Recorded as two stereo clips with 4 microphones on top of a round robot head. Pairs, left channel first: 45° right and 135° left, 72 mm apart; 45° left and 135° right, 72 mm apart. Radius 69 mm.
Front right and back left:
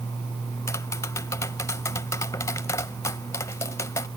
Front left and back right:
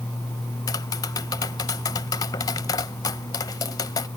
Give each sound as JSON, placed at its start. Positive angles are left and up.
{"t": 0.7, "sound": "tapping", "azimuth_deg": 5}